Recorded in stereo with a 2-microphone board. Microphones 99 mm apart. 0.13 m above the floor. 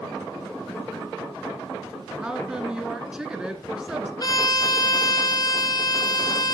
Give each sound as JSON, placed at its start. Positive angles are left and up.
{"t": 2.2, "sound": "a woman speaking", "side_deg": -10, "distance_m": 1.5}
{"t": 4.2, "sound": "a violin", "side_deg": 45, "distance_m": 1.4}